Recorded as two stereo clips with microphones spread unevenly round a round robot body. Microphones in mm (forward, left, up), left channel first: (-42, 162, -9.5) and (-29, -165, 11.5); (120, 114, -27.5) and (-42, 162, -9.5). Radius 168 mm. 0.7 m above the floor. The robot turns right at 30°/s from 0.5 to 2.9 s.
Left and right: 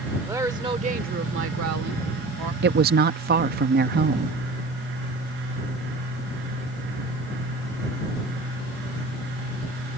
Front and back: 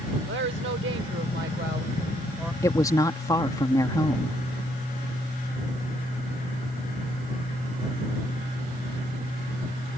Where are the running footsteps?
No running footsteps in this recording.